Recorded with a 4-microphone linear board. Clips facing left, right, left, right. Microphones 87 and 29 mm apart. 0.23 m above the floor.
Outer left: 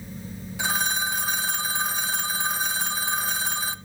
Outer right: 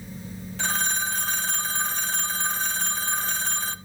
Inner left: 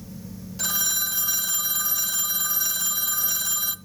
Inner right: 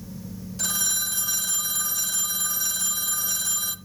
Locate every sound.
0.6 s a phone ringing: 10° left (ahead or behind), 0.7 m